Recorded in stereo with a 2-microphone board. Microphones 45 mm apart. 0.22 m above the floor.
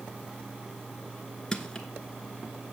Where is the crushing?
15° left (ahead or behind), 1.0 m.